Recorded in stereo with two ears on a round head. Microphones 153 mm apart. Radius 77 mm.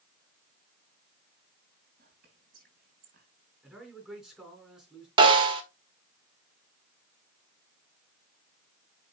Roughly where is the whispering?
Right.